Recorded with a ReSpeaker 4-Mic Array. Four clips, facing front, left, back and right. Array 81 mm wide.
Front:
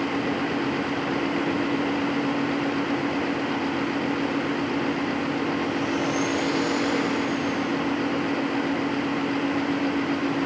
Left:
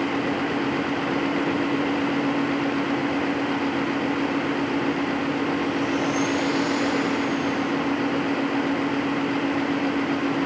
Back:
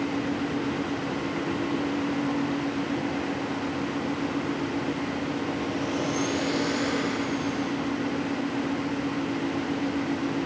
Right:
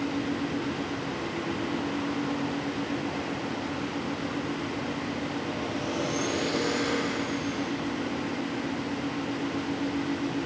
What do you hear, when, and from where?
Only background noise.